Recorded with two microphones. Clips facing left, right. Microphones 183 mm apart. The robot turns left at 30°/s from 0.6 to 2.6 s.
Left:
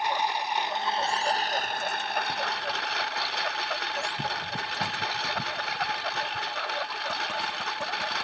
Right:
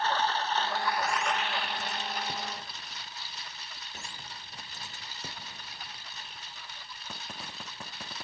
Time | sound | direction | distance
0.0 | a lawn mower | 165° left | ?